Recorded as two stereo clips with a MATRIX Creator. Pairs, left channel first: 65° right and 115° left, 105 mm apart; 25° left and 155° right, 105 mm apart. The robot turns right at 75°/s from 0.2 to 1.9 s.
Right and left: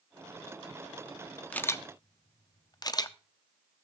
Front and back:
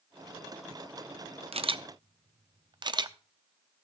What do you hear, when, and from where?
1.5 s a camera shutter: 145° right, 0.5 m; by 3.2 s 115° right, 0.5 m